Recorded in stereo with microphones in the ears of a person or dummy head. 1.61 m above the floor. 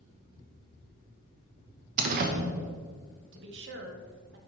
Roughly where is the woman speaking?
Right.